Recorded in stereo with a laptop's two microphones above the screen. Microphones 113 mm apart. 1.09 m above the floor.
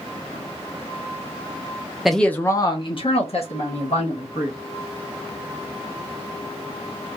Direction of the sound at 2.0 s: 5° right (ahead or behind).